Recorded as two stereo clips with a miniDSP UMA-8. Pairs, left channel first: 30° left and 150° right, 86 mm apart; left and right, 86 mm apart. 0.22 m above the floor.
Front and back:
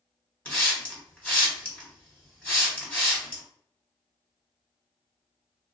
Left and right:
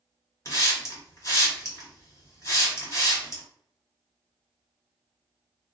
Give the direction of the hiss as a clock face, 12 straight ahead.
9 o'clock.